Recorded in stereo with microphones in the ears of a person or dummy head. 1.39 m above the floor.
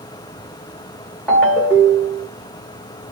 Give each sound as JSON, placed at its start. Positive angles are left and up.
{"t": 1.3, "sound": "a ringtone", "side_deg": 10, "distance_m": 1.2}